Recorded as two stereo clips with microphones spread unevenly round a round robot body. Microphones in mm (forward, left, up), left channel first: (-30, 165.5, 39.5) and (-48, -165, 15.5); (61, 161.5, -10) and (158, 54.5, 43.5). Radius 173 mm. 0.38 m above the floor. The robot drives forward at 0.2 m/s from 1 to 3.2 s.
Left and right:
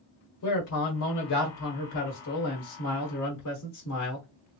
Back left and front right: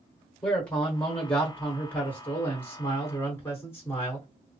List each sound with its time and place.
0.4 s a man speaking: 70° left, 1.6 m; by 4.3 s 95° left, 1.6 m